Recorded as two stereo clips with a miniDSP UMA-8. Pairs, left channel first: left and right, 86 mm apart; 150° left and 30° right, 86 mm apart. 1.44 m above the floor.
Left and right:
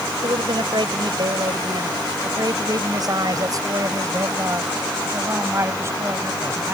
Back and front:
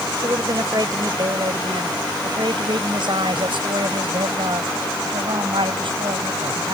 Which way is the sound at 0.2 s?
70° right.